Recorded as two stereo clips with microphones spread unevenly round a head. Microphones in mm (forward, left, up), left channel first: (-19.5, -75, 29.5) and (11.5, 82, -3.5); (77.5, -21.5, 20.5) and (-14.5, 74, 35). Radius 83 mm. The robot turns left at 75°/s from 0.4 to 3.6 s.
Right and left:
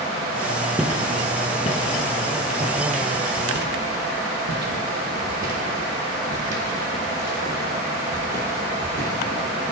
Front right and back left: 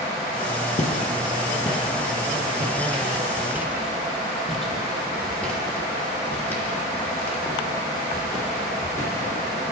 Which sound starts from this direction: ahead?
Footsteps, at 0.8 s.